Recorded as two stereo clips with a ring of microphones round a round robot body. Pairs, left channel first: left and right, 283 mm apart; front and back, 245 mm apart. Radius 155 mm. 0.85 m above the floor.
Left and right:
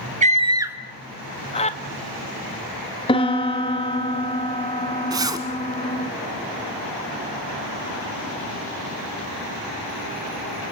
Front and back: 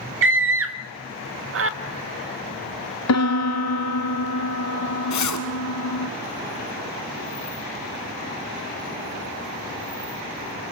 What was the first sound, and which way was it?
A scream, 150° right.